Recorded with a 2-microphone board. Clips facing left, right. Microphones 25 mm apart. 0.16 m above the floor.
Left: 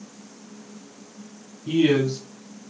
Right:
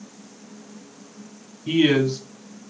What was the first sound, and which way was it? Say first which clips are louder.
A man speaking: right 1 dB; 50° right (ahead or behind).